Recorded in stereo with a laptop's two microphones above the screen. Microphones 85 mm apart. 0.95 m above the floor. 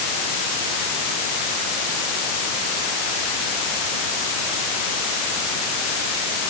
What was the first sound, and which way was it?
Only background noise.